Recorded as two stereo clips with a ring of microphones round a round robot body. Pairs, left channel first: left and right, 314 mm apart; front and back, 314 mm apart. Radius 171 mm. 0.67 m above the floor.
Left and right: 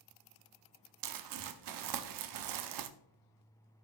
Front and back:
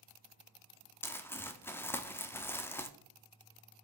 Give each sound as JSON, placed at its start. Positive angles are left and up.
{"t": 1.0, "sound": "crumpling", "azimuth_deg": -85, "distance_m": 0.8}